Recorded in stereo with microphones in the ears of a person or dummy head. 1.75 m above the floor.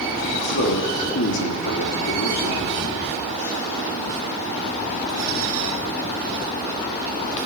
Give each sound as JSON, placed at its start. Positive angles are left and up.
{"t": 0.3, "sound": "a man speaking", "side_deg": 60, "distance_m": 3.0}